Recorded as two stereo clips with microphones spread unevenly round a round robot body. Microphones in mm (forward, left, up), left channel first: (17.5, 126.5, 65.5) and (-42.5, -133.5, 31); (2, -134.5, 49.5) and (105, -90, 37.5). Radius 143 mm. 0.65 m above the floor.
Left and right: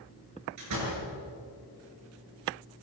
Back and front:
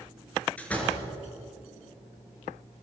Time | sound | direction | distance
0.6 | a door slam | 80° right | 7.5 m